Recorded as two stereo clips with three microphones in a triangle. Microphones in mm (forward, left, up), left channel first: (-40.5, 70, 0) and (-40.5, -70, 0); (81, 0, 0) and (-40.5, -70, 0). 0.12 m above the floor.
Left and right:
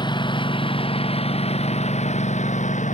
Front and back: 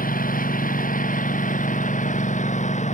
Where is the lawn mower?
35° left; by 2.9 s 60° left.